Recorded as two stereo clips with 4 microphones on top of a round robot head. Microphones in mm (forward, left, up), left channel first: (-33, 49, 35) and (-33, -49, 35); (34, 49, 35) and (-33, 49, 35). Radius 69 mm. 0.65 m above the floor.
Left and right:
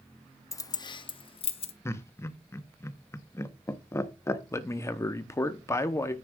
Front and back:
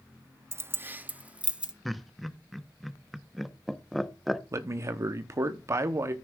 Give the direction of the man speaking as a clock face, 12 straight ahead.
7 o'clock.